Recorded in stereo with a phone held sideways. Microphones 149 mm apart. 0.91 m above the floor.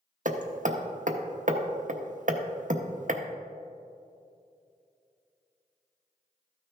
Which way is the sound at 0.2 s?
60° right (ahead or behind).